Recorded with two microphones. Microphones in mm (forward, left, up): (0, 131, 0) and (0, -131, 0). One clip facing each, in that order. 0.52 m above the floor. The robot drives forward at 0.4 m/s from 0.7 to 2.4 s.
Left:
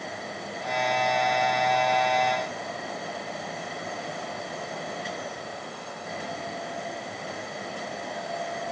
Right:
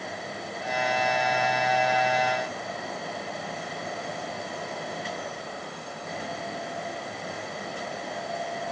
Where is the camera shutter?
No camera shutter in this recording.